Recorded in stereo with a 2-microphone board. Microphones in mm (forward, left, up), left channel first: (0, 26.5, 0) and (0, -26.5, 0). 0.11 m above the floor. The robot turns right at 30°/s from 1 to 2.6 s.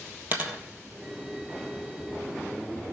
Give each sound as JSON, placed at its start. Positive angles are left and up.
{"t": 0.3, "sound": "a dropped coin", "side_deg": -40, "distance_m": 1.5}